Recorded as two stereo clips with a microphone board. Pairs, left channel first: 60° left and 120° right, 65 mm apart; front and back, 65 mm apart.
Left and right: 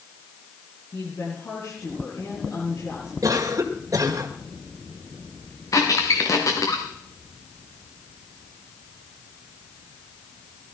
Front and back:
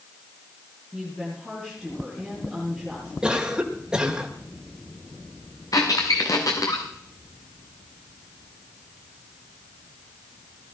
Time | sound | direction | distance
0.9 | a woman speaking | 85° left | 9 m
3.2 | a cough | 105° right | 1.6 m
5.7 | a squeak | 25° left | 2.5 m